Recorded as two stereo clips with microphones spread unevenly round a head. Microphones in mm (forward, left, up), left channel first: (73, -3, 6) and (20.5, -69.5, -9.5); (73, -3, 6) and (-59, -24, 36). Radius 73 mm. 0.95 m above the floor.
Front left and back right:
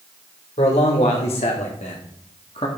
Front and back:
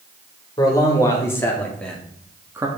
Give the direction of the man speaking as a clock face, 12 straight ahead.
10 o'clock.